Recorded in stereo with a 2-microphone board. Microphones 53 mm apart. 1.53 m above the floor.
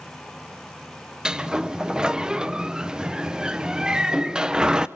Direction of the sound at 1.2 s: 15° right (ahead or behind).